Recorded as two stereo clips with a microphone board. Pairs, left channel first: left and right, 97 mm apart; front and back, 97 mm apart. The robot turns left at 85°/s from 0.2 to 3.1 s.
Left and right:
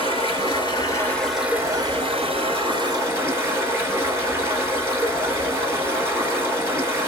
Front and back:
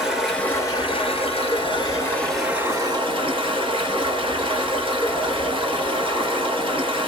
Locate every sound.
0.0 s running water: 90° left, 1.5 m; by 7.1 s 155° right, 1.5 m